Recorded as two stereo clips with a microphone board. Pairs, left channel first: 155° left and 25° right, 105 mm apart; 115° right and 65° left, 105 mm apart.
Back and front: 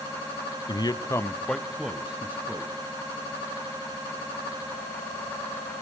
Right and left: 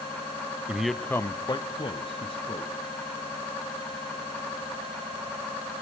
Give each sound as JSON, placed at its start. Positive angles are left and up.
{"t": 0.7, "sound": "a man speaking", "azimuth_deg": 140, "distance_m": 1.1}